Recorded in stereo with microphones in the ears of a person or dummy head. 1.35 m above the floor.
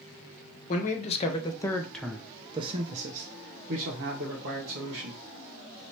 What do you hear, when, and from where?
0.7 s a man speaking: 45° left (ahead or behind), 1.0 m; by 5.2 s 70° right (ahead or behind), 1.8 m